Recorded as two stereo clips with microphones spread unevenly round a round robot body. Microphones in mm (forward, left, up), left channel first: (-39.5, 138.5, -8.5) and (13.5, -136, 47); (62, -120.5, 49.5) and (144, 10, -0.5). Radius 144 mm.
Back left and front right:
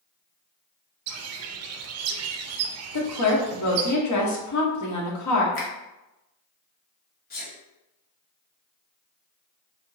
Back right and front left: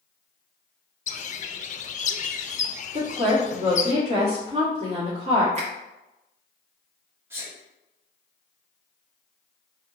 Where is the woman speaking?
105° left, 1.3 m.